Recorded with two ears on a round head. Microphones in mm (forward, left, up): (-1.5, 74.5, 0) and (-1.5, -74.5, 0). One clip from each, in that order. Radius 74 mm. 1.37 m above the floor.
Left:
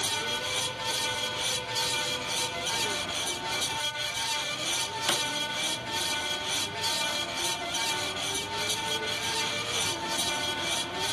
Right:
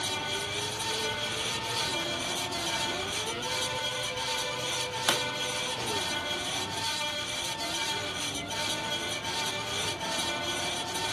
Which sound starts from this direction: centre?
A pop, at 5.1 s.